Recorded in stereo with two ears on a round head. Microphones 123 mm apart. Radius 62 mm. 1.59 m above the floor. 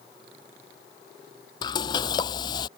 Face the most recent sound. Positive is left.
turn(degrees=30)  # may be behind; listen again after turning